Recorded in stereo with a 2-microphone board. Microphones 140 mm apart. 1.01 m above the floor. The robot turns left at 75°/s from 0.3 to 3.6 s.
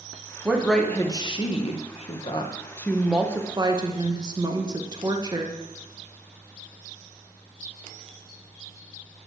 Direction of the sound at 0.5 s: 165° right.